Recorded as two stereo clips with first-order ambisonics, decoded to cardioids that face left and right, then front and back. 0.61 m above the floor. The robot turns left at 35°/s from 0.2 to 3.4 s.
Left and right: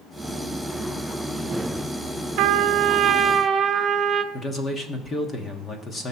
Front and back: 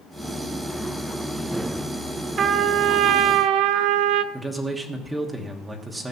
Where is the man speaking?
110° left, 1.2 m.